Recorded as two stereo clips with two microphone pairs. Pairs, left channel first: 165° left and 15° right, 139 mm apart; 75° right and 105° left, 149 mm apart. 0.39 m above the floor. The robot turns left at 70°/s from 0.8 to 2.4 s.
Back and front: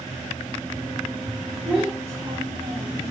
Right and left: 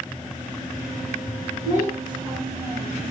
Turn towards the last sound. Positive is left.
turn(degrees=30)